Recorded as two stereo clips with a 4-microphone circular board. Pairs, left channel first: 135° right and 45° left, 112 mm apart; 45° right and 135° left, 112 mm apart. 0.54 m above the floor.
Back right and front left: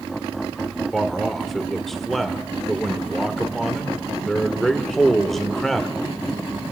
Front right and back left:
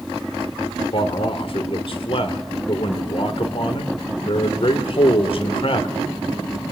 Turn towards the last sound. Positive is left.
turn(degrees=-50)